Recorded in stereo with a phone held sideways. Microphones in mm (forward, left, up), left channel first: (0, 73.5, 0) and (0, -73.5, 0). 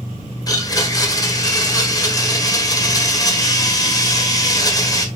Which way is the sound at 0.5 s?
25° left (ahead or behind).